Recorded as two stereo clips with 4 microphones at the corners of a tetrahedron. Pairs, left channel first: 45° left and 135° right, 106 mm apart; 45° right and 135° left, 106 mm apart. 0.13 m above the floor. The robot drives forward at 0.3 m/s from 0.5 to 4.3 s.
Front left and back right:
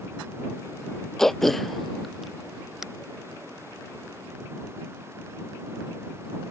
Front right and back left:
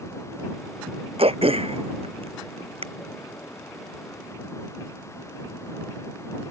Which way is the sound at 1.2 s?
130° left.